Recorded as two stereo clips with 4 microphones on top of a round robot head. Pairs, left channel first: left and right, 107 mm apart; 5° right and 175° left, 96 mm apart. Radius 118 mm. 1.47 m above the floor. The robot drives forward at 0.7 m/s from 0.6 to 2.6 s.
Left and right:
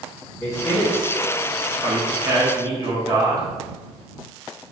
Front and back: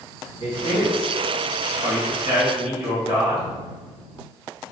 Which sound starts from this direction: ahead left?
A man speaking, at 0.4 s.